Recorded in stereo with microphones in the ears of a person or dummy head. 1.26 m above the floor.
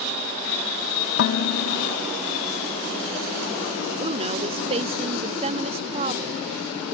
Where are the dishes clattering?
55° left (ahead or behind).